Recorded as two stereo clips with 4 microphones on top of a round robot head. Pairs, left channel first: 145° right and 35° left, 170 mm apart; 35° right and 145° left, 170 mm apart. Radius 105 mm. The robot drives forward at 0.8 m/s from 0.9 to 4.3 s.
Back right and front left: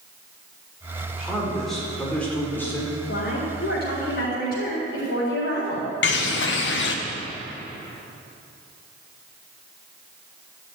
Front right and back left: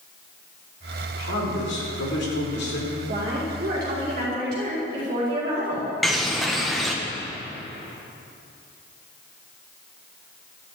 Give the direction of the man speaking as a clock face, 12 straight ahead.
2 o'clock.